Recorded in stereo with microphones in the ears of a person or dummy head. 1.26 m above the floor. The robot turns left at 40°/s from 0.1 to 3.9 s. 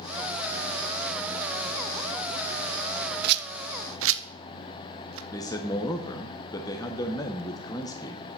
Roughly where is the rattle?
Right.